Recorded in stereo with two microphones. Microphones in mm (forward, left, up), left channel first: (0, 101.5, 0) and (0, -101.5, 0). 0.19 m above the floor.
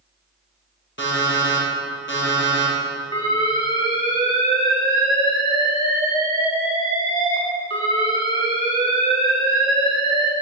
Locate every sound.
1.0 s an alarm clock: 65° left (ahead or behind), 3.5 m
3.1 s an alarm: 25° left (ahead or behind), 2.5 m